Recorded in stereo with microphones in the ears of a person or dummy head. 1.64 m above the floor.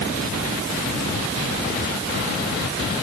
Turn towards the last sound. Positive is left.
No sound to turn to.